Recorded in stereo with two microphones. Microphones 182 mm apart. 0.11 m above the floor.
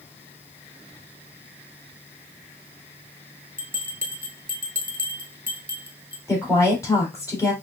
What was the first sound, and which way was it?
A bell, 50° right (ahead or behind).